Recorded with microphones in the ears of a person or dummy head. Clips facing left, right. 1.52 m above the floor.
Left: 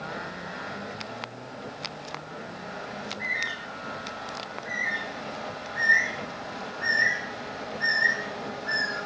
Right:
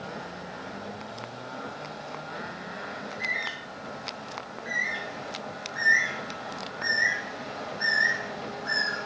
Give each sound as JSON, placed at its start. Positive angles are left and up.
{"t": 3.0, "sound": "a bird", "side_deg": -45, "distance_m": 4.5}